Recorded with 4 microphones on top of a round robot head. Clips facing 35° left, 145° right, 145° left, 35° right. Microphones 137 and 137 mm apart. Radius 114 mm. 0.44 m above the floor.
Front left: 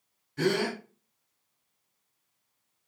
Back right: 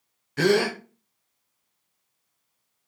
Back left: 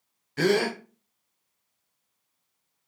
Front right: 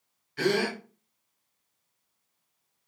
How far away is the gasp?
About 0.7 m.